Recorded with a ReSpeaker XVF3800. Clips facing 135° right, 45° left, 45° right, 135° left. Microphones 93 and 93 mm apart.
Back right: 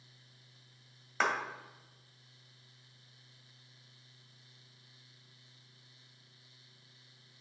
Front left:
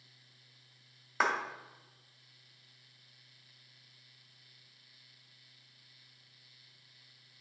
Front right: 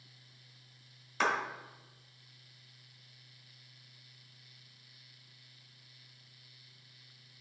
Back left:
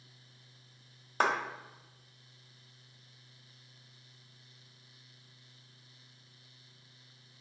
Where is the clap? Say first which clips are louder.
Front left 1 dB, back left 2 dB; 125° left, 1.4 m.